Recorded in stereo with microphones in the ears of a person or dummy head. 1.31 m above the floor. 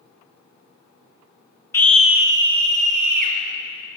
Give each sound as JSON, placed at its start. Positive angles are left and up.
{"t": 1.7, "sound": "a scream", "side_deg": 20, "distance_m": 0.6}